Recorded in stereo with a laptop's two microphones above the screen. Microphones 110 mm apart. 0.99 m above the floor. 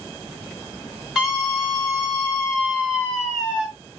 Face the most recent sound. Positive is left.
turn(degrees=-10)  # may be behind; listen again after turning